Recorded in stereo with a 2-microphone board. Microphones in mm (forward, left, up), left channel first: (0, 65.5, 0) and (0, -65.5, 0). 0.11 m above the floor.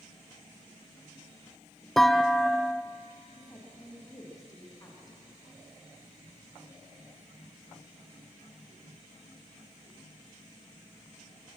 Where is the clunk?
Centre (ahead or behind), 0.8 m.